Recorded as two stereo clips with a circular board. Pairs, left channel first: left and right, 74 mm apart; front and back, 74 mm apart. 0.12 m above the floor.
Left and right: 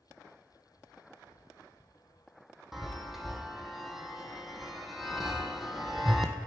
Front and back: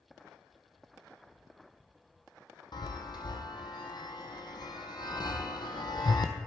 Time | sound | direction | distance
2.7 | a chime | 5° right | 0.7 m